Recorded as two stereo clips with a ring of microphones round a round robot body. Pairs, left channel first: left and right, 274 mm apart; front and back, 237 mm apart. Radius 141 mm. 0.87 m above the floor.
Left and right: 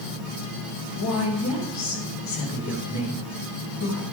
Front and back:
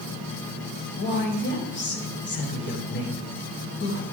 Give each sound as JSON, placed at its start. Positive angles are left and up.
{"t": 1.0, "sound": "a woman speaking", "azimuth_deg": 45, "distance_m": 5.0}